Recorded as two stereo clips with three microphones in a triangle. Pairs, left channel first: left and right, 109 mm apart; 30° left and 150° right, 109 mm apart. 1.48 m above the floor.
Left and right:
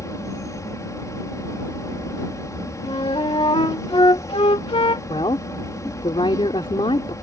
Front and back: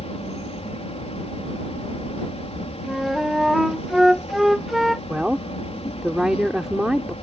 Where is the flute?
120° left.